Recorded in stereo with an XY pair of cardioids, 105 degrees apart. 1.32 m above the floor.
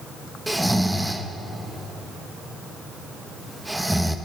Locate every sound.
0.5 s snoring: 5° right, 1.0 m